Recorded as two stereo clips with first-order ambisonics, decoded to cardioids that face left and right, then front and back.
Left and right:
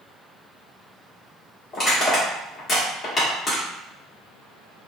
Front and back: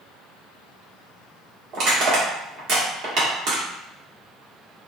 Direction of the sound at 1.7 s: 155° left.